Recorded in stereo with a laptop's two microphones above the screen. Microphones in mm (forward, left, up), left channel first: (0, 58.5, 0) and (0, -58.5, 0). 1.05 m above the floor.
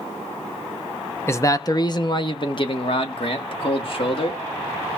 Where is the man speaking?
20° left (ahead or behind), 0.7 m; by 4.4 s 50° left (ahead or behind), 2.5 m.